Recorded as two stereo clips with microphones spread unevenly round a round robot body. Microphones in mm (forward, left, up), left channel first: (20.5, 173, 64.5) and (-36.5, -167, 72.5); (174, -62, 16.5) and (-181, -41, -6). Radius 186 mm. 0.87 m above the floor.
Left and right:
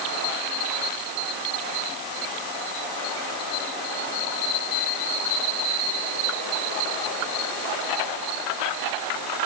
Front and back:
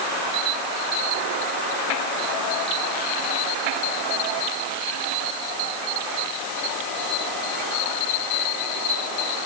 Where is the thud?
I don't hear a thud.